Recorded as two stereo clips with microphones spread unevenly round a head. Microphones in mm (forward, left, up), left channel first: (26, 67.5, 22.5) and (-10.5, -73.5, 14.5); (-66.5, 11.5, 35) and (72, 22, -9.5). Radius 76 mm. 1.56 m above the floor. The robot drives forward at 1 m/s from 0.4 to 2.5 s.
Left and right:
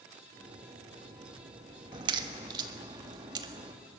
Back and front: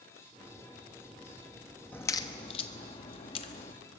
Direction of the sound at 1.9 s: 145° right.